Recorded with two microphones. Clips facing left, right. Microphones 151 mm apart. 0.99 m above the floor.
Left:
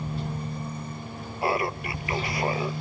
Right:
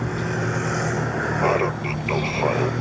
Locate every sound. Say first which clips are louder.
0.0 s a vehicle: right 8 dB; 75° right (ahead or behind); by 2.8 s 70° right (ahead or behind)
1.4 s laughter: right 4 dB; 25° right (ahead or behind)